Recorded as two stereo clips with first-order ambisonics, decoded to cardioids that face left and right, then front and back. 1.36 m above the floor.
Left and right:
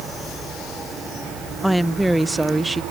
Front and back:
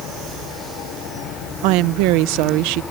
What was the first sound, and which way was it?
A woman speaking, 175° right.